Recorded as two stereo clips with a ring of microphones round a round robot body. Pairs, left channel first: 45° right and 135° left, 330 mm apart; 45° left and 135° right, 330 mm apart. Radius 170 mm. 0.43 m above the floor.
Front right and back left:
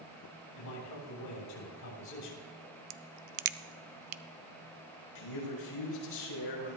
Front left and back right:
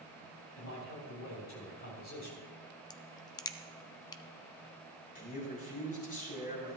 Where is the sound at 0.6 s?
5° right, 3.5 m.